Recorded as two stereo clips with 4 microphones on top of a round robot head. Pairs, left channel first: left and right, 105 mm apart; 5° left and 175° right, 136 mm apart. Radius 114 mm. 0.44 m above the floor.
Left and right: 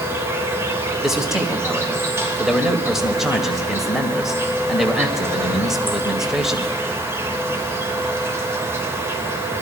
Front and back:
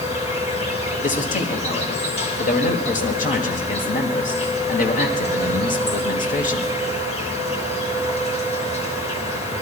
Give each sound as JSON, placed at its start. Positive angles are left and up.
{"t": 0.0, "sound": "an insect", "azimuth_deg": -25, "distance_m": 3.0}
{"t": 1.0, "sound": "a man speaking", "azimuth_deg": -5, "distance_m": 1.9}